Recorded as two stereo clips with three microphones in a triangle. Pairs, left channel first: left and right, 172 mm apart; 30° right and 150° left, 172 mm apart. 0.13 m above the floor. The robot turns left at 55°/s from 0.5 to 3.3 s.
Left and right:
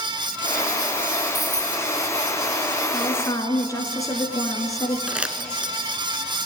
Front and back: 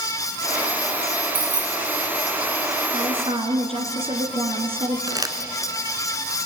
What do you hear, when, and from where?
1.3 s keys jangling: 175° right, 1.1 m; by 1.8 s 160° left, 1.1 m
2.9 s a woman speaking: 165° left, 2.0 m; by 5.0 s 145° left, 2.0 m
5.1 s crumpling: 165° right, 1.3 m